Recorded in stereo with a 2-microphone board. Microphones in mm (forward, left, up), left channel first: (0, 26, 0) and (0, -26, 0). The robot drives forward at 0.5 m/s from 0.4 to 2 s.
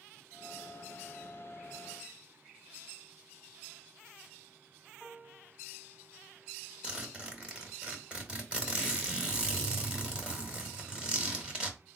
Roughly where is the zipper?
Centre.